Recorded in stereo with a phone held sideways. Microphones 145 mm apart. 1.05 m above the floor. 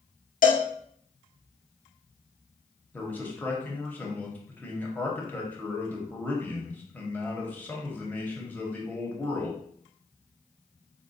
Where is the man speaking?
10° left (ahead or behind), 0.9 m.